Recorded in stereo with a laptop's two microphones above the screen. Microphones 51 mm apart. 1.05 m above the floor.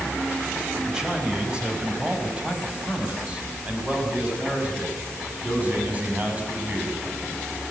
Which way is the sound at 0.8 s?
15° right (ahead or behind).